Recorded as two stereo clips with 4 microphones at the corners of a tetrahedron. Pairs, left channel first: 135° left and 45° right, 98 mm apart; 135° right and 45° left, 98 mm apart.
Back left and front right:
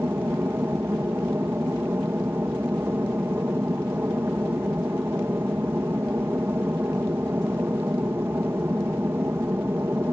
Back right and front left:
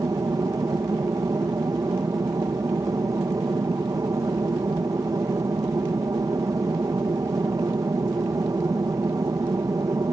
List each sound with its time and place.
0.0 s an aircraft: 10° left